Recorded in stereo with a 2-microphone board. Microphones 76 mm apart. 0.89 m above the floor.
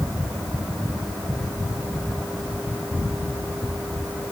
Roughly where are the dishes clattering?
I don't hear dishes clattering.